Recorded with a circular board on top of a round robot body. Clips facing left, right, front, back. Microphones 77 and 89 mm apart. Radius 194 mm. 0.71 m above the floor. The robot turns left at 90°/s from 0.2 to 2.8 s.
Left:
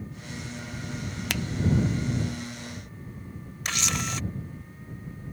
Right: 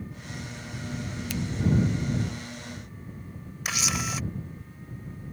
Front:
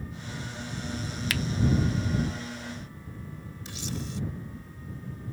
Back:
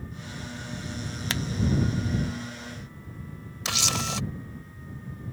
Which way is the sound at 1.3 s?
115° left.